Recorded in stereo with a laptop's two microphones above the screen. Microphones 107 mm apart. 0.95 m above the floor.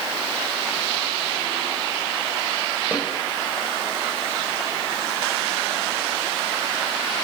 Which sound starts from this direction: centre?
A snare drum, at 2.9 s.